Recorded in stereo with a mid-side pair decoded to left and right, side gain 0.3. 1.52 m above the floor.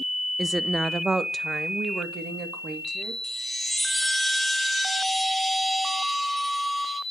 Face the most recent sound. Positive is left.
turn(degrees=-10)